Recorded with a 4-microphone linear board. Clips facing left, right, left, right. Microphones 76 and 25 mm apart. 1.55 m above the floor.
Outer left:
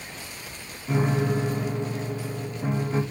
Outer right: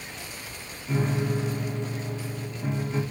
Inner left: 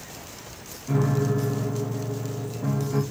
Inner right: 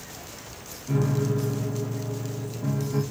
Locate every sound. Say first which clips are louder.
0.9 s a piano: outer left 3 dB, inner left 2 dB; 25° left (ahead or behind), 2 m